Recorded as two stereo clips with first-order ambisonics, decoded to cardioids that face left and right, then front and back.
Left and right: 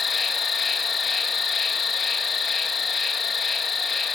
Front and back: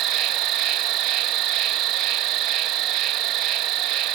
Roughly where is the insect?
Behind left.